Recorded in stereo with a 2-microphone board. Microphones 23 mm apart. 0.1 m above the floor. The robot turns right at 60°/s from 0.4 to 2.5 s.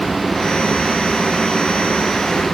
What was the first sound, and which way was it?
Only background noise.